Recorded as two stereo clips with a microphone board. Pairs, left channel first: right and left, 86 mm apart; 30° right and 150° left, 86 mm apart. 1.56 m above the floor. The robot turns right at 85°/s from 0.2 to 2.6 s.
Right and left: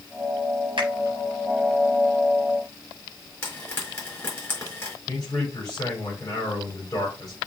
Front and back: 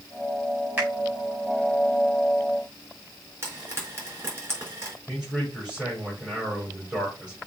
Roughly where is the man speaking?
Behind right.